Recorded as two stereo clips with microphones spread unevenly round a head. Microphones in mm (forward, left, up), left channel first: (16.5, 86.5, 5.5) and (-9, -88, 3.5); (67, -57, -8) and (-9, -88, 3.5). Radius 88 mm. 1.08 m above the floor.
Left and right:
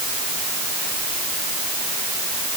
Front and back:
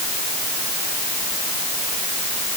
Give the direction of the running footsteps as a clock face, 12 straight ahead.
I don't hear running footsteps.